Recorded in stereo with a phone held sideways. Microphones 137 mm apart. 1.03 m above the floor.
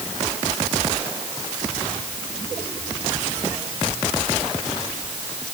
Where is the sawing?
No sawing in this recording.